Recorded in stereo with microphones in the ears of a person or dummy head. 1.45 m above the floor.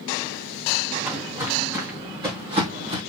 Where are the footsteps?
10° right (ahead or behind), 4 m; by 3.0 s 35° right (ahead or behind), 3 m.